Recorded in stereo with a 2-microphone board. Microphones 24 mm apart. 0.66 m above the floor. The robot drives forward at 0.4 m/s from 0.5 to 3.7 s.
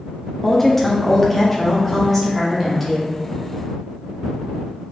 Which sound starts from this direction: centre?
A woman speaking, at 0.4 s.